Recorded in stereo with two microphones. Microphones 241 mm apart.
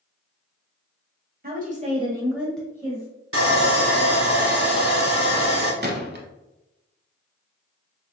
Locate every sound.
1.4 s a woman speaking: 35° right (ahead or behind), 1.2 m; by 3.1 s 20° left (ahead or behind), 1.1 m
3.3 s sawing: 60° right (ahead or behind), 1.0 m
5.8 s a gunshot: 40° right (ahead or behind), 0.7 m